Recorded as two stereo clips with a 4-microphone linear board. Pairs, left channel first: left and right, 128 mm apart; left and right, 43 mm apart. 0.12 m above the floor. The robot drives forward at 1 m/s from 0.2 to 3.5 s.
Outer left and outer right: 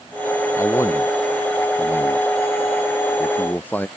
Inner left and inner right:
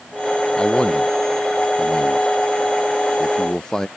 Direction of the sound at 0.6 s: 25° left (ahead or behind).